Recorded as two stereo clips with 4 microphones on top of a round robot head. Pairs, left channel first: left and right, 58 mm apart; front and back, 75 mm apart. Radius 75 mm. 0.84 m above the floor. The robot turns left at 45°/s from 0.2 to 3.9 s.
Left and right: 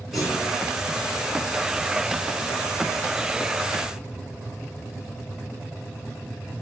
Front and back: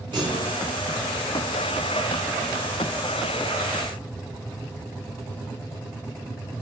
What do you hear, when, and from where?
0.1 s a clunk: straight behind, 3 m; by 0.6 s 165° left, 3 m